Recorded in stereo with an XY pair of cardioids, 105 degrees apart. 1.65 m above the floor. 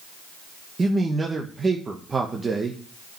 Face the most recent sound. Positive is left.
turn(degrees=-30)